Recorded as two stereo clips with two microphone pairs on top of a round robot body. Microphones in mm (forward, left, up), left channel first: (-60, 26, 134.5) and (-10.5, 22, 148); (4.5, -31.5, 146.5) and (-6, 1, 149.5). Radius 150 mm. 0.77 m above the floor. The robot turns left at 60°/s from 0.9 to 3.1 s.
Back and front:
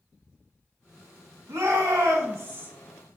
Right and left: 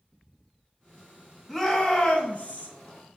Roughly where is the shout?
Ahead.